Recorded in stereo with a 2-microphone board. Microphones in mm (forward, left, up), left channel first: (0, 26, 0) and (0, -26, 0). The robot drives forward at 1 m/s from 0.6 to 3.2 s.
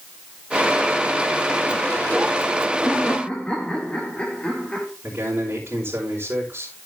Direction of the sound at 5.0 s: 50° right (ahead or behind).